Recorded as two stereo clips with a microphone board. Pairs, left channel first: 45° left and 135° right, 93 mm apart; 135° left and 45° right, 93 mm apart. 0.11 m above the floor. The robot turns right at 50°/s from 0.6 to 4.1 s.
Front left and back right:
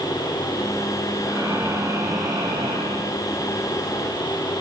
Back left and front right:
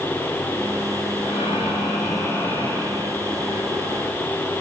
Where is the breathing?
140° left, 4.5 m; by 3.1 s 125° right, 4.5 m.